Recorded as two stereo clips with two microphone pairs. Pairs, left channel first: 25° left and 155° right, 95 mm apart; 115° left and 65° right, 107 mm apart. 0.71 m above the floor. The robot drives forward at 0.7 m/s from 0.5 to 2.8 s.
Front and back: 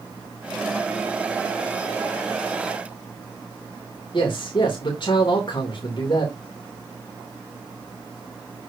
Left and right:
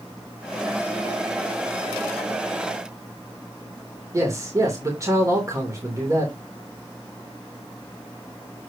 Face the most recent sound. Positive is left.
turn(degrees=-5)